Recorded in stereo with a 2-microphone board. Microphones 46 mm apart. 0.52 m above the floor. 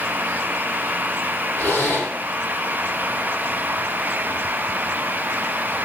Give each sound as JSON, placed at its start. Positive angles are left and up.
{"t": 1.6, "sound": "a zipper", "side_deg": 50, "distance_m": 4.0}